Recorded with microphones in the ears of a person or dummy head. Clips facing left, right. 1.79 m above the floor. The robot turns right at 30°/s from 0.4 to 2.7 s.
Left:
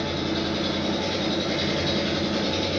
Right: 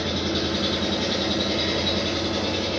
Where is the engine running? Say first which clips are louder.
Right 1 dB; 35° right, 1.7 m; by 2.8 s 30° left, 1.7 m.